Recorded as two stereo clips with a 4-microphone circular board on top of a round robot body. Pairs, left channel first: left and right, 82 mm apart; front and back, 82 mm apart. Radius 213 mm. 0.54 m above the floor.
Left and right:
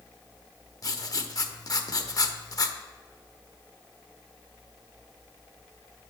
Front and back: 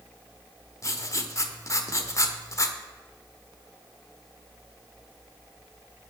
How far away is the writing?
About 1.0 m.